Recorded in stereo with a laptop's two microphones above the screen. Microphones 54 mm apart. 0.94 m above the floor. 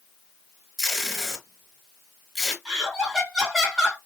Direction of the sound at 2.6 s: Centre (ahead or behind).